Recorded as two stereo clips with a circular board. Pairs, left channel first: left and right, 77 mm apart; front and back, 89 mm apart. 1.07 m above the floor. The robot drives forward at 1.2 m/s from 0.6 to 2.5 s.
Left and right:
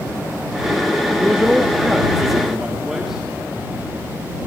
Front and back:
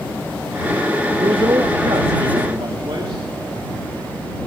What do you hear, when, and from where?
1.2 s a man speaking: 165° right, 0.9 m; by 3.3 s 175° right, 2.5 m